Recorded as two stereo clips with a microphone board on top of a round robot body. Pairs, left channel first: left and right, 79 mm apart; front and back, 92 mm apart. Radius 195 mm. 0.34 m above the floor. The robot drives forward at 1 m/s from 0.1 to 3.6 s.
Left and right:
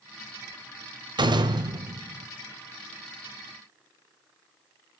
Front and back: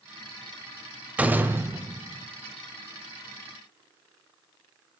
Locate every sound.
1.2 s a door slam: 105° right, 1.8 m; by 2.3 s 135° right, 2.5 m